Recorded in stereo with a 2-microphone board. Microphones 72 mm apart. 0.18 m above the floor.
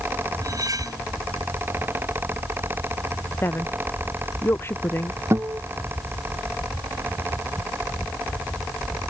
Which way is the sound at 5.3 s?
35° right (ahead or behind).